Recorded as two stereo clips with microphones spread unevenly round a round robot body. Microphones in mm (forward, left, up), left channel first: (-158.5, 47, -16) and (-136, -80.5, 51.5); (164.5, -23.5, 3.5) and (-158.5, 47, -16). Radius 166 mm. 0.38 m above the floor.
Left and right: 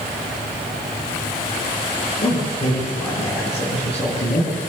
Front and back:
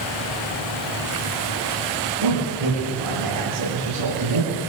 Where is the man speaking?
140° left, 8.5 m.